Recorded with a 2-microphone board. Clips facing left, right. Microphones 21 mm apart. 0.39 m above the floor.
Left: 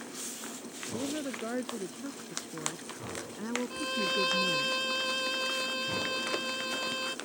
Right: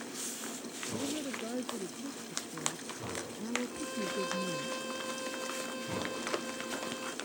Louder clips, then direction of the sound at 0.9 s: Left 2 dB; 75° left (ahead or behind).